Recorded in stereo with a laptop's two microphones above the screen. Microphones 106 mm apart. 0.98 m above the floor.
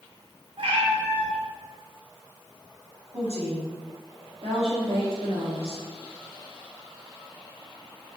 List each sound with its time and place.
0.6 s a cat meowing: 60° right (ahead or behind), 0.7 m
3.1 s a woman speaking: 75° right (ahead or behind), 1.8 m